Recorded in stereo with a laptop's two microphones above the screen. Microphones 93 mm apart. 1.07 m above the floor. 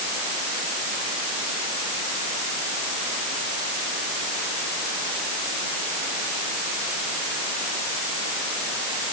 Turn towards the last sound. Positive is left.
No sound to turn to.